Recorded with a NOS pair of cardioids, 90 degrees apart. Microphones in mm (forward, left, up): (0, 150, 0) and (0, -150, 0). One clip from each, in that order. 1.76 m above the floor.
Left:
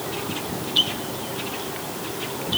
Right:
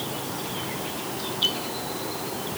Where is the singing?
No singing in this recording.